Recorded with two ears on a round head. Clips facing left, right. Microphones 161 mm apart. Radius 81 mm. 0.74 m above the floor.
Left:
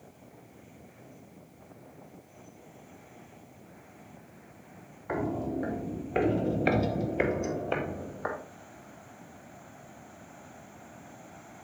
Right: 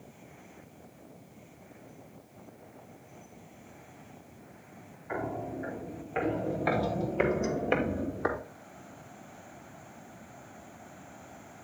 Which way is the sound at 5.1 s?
70° left (ahead or behind).